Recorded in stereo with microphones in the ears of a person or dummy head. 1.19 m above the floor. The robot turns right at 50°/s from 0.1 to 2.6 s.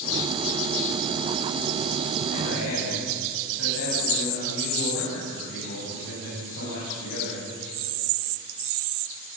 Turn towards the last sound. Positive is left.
turn(degrees=90)